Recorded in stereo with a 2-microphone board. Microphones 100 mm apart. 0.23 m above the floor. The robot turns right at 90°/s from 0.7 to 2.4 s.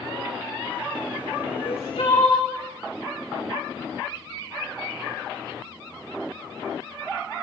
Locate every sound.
1.5 s crying: 70° left, 6.5 m; by 2.5 s 145° left, 6.5 m